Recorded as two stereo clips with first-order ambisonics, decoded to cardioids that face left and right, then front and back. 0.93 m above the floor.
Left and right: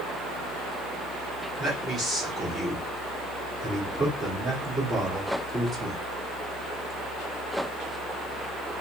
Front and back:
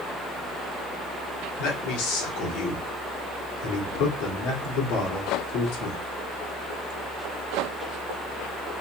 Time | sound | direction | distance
1.6 | a man speaking | 10° right | 1.8 m